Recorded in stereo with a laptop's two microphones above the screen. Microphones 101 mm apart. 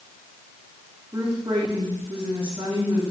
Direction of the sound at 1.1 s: 60° right (ahead or behind).